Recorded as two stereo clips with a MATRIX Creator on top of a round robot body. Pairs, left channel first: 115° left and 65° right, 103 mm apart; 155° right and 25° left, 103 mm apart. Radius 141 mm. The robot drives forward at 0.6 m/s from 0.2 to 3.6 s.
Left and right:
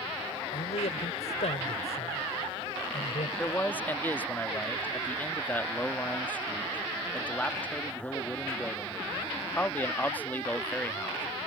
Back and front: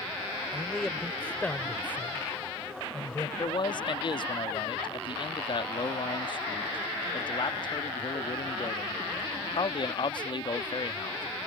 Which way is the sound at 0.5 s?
115° left.